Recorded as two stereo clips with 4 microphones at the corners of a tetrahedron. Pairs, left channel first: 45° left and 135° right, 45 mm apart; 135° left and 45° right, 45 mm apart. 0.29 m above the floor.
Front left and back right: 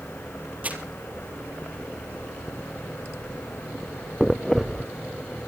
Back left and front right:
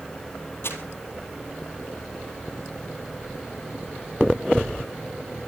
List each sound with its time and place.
0.6 s crumpling: 170° left, 3.5 m